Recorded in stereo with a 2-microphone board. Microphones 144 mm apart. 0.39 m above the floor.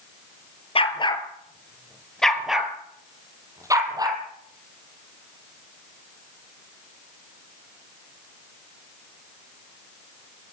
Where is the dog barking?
40° left (ahead or behind), 3 m; by 4.2 s 30° right (ahead or behind), 5 m.